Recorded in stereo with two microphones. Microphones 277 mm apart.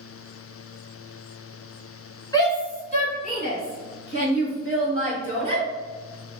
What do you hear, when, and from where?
2.3 s a shout: 15° left (ahead or behind), 1.9 m; by 5.6 s 60° left (ahead or behind), 3 m